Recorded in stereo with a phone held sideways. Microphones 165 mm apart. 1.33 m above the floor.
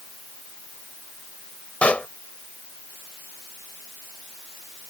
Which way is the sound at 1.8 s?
10° left (ahead or behind).